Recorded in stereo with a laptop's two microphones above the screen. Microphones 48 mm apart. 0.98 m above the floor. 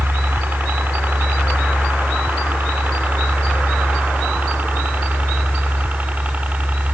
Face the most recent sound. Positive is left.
turn(degrees=-30)  # may be behind; listen again after turning